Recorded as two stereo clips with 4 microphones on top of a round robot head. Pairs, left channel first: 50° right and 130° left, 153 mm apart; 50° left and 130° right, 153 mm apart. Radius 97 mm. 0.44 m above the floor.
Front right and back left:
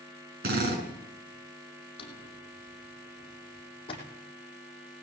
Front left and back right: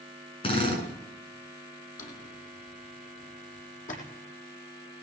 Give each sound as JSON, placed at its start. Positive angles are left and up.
{"t": 0.4, "sound": "a drill", "azimuth_deg": 105, "distance_m": 7.0}
{"t": 2.0, "sound": "a drawer", "azimuth_deg": 10, "distance_m": 5.5}